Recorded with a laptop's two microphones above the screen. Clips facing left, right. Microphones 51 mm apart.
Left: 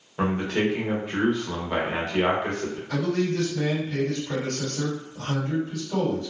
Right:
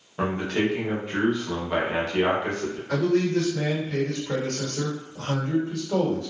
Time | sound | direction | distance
0.2 | a man speaking | centre (ahead or behind) | 1.0 m
2.9 | a man speaking | 55° right (ahead or behind) | 1.5 m